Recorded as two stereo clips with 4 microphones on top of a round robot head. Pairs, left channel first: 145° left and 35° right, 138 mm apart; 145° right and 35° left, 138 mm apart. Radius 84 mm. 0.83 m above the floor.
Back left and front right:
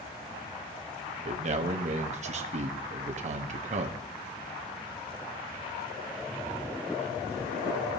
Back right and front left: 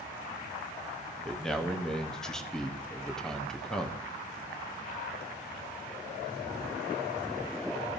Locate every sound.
1.2 s a man speaking: 60° right, 1.1 m